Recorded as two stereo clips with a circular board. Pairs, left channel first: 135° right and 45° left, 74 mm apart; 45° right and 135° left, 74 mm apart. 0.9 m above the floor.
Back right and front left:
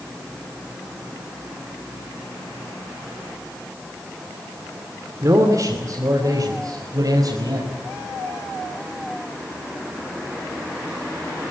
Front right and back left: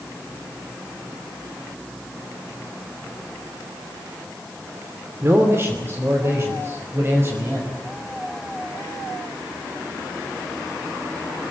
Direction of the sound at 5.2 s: 85° left.